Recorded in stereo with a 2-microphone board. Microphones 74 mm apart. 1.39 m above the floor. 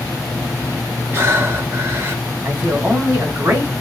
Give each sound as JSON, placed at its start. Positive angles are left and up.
{"t": 1.1, "sound": "breathing", "side_deg": -35, "distance_m": 1.4}
{"t": 2.5, "sound": "a man speaking", "side_deg": -30, "distance_m": 2.5}